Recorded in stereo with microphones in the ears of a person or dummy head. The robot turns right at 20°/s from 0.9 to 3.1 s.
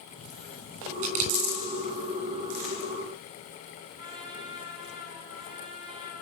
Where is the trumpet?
25° right (ahead or behind), 10 m.